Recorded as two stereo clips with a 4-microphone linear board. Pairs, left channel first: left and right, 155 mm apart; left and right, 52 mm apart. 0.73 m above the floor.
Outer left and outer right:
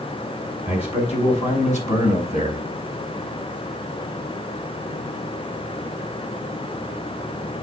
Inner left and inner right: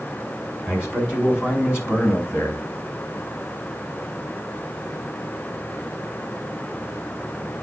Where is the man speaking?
40° left (ahead or behind), 5.5 m; by 2.6 s 60° left (ahead or behind), 4.5 m.